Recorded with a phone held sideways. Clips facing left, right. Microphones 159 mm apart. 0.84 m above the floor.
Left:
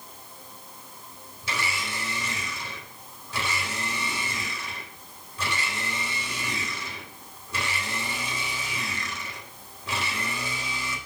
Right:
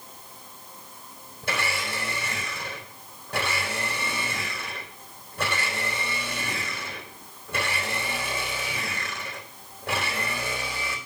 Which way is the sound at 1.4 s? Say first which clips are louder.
Right 3 dB; 55° right (ahead or behind).